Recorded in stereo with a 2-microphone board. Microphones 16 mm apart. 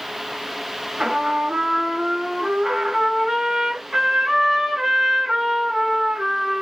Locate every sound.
1.0 s a trumpet: 65° right (ahead or behind), 2 m